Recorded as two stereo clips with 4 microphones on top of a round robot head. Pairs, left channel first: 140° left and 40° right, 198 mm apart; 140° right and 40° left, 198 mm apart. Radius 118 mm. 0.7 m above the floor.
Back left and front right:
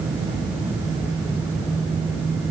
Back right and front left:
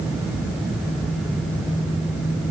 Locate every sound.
Only background noise.